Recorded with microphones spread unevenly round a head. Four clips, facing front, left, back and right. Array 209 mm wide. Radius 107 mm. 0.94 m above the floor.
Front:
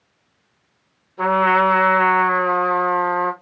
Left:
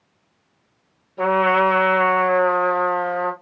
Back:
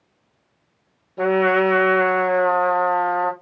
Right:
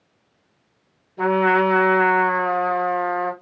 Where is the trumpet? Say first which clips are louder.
Left 1 dB, front 1 dB; 170° right, 1.5 m.